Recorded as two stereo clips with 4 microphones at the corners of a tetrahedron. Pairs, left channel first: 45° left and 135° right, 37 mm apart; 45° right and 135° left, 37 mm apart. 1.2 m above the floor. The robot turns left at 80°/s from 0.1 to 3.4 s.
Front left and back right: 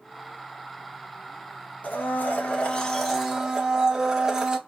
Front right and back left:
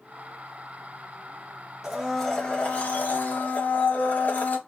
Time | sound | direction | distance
1.8 | a blender | 60° left | 0.7 m